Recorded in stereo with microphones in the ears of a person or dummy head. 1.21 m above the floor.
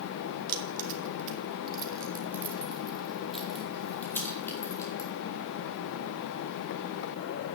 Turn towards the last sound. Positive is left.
turn(degrees=20)  # may be behind; listen again after turning